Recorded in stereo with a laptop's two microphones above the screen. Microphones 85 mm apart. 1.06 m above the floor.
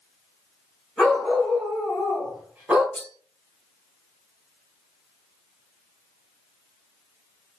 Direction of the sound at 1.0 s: 5° left (ahead or behind).